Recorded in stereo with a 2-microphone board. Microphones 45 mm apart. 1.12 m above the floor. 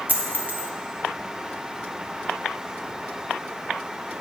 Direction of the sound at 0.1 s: 40° right (ahead or behind).